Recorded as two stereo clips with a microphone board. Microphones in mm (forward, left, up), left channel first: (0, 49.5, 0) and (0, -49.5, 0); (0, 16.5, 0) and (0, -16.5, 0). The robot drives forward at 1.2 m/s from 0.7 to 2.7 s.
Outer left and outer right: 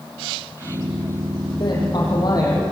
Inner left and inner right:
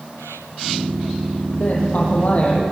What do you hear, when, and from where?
1.6 s a woman speaking: 50° left (ahead or behind), 6.5 m; by 2.6 s 40° left (ahead or behind), 7.5 m